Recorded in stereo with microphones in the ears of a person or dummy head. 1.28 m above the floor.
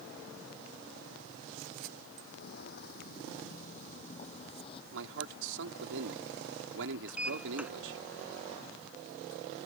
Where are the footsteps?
65° left (ahead or behind); by 4.8 s 35° left (ahead or behind).